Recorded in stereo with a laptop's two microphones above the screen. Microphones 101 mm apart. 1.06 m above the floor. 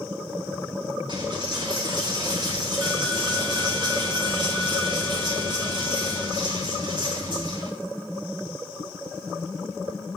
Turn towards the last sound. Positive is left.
turn(degrees=-50)  # may be behind; listen again after turning